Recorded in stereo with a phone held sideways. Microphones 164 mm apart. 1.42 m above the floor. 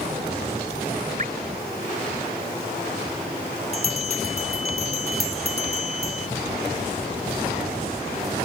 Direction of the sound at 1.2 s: 55° right (ahead or behind).